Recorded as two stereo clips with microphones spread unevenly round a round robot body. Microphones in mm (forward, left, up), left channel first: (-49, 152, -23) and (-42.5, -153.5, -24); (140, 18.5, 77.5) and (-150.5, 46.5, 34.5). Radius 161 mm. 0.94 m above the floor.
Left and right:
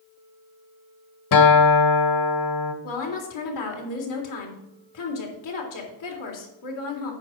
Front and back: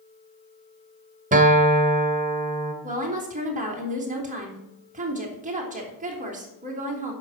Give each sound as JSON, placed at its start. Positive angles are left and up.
{"t": 1.3, "sound": "a guitar", "azimuth_deg": 110, "distance_m": 1.7}
{"t": 2.8, "sound": "a woman speaking", "azimuth_deg": 110, "distance_m": 3.5}